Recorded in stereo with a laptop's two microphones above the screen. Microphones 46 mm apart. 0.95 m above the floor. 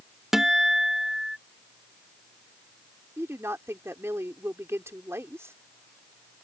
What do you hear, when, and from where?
0.3 s a guitar: 10° right (ahead or behind)
3.2 s a woman speaking: 75° right (ahead or behind)